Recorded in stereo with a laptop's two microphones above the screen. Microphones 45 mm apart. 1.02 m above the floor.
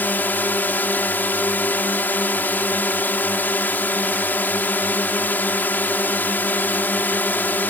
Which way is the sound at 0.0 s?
45° left (ahead or behind).